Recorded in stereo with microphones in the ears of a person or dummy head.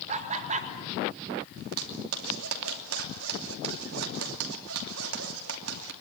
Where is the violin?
I don't hear a violin.